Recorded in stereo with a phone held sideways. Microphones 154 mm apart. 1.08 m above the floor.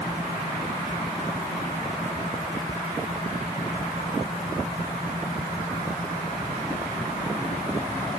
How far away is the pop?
No pop in this recording.